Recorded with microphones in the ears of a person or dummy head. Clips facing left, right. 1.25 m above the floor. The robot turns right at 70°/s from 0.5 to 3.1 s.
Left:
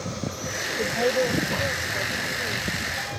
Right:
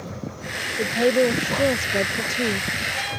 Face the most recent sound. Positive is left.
turn(degrees=-10)